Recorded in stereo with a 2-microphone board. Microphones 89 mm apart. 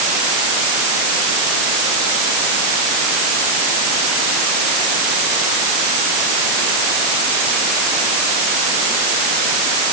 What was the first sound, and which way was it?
Only background noise.